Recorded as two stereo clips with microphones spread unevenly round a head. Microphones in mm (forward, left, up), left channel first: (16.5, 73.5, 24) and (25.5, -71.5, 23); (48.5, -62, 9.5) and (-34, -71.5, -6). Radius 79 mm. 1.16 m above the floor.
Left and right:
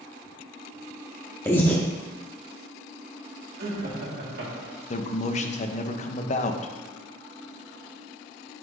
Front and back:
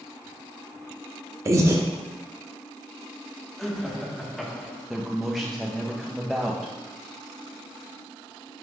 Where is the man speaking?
105° left, 0.6 m.